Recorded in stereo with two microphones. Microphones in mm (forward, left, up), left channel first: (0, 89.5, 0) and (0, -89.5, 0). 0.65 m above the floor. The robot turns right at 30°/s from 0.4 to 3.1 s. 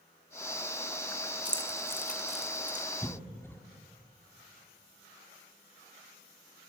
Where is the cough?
10° left (ahead or behind), 1.6 m; by 3.6 s 15° left (ahead or behind), 1.6 m.